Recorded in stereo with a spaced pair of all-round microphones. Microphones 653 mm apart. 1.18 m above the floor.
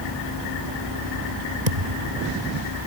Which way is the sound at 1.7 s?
85° right.